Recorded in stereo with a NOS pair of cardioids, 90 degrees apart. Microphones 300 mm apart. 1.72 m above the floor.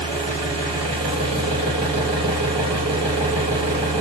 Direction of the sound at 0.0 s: 20° right.